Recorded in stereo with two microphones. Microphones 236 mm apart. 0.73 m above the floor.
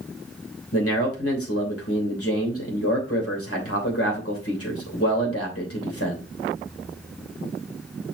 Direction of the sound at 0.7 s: 70° left (ahead or behind).